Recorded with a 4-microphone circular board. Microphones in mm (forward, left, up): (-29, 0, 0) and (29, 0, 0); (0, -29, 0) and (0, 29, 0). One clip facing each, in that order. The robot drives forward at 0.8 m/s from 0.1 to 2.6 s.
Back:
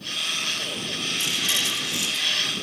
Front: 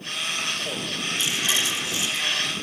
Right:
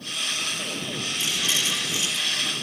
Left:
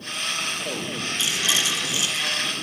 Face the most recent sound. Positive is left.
turn(degrees=-150)